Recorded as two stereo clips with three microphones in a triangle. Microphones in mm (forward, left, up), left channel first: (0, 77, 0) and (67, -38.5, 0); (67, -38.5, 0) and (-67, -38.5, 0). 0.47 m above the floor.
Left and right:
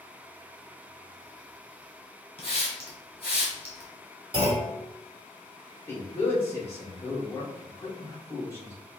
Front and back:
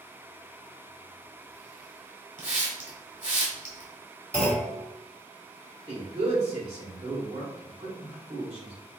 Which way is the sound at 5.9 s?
175° right.